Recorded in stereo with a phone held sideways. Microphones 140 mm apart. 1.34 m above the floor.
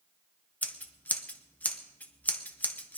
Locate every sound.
0.6 s scissors: 10° left (ahead or behind), 1.0 m